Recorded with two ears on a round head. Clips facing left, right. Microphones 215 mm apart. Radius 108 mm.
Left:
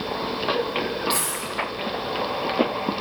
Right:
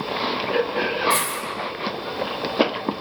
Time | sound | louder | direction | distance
1.1 | a dropped coin | right 2 dB | 45° right (ahead or behind) | 6 m